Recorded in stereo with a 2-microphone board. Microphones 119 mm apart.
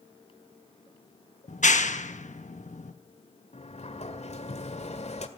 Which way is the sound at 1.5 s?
80° left.